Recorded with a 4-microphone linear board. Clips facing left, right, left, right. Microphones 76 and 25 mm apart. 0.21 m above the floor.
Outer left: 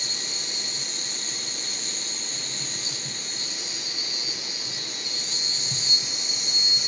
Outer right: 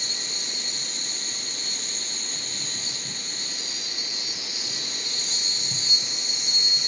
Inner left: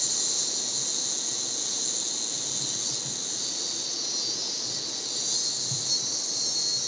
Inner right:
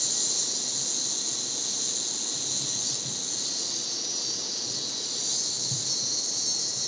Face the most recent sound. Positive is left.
turn(degrees=0)  # may be behind; listen again after turning